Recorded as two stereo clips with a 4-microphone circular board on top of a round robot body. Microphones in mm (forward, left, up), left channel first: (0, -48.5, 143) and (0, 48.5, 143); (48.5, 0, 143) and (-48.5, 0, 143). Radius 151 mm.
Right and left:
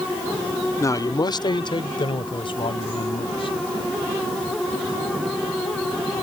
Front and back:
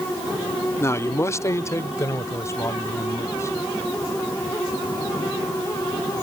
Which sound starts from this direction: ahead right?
A man speaking, at 0.8 s.